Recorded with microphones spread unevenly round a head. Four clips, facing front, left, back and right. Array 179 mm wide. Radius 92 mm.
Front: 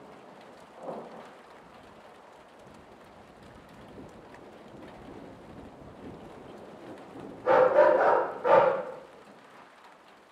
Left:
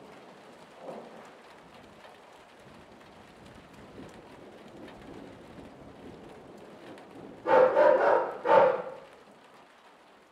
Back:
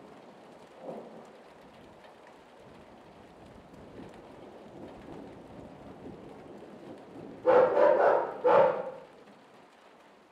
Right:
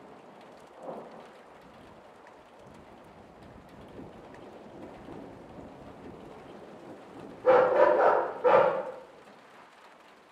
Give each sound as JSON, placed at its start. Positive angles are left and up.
{"t": 4.9, "sound": "keys jangling", "azimuth_deg": -160, "distance_m": 0.5}
{"t": 7.4, "sound": "a dog barking", "azimuth_deg": -120, "distance_m": 1.6}